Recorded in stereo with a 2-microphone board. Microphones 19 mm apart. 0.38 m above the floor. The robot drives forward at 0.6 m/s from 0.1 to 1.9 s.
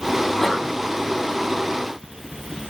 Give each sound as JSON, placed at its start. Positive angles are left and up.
{"t": 0.2, "sound": "a sneeze", "side_deg": 20, "distance_m": 3.5}